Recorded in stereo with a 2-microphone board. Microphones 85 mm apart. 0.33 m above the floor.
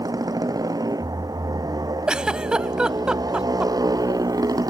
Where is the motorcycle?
50° right (ahead or behind).